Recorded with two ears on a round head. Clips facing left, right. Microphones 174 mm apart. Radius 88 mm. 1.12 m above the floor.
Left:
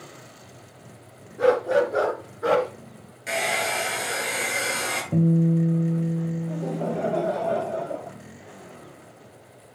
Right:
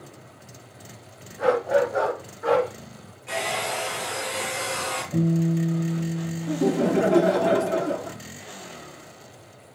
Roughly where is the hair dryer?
Left.